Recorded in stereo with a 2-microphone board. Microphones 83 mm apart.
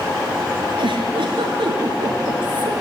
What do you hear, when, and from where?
0.8 s a giggle: 80° right, 5 m